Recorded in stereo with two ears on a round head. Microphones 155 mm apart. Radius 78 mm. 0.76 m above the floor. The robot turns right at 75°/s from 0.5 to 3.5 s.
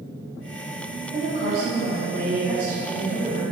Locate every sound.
1.1 s a woman speaking: 140° right, 1.5 m; by 3.4 s 30° left, 1.5 m